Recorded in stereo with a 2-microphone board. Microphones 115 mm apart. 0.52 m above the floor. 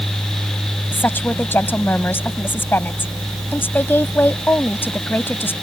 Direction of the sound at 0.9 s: 20° left (ahead or behind).